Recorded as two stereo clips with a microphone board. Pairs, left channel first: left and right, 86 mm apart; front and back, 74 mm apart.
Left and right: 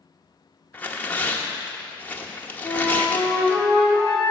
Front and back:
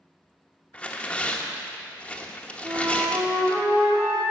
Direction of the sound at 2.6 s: Straight behind.